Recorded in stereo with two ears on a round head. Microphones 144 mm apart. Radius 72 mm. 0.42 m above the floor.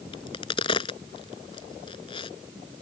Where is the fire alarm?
No fire alarm in this recording.